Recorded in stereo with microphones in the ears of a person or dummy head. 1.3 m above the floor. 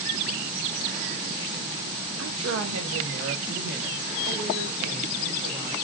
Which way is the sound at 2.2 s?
70° right (ahead or behind).